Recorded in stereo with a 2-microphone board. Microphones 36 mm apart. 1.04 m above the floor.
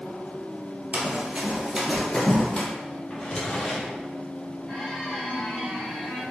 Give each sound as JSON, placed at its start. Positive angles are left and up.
{"t": 0.9, "sound": "running footsteps", "side_deg": -50, "distance_m": 1.4}
{"t": 3.1, "sound": "a drawer", "side_deg": 25, "distance_m": 0.8}
{"t": 4.7, "sound": "a squeak", "side_deg": 0, "distance_m": 1.7}